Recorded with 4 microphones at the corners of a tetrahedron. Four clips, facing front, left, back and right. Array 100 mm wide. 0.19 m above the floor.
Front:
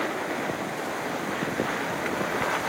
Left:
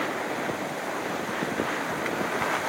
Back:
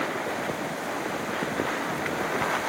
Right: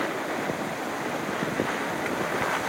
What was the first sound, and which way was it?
Only background noise.